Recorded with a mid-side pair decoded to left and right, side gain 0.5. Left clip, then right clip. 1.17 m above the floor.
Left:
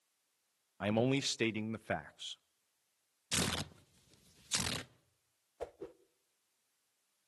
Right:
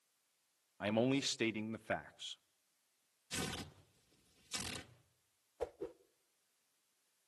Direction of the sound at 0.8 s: 25° left.